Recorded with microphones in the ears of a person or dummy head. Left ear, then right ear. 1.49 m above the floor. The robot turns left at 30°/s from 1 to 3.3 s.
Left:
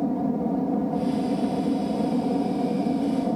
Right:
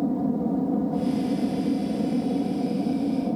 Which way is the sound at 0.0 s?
155° left.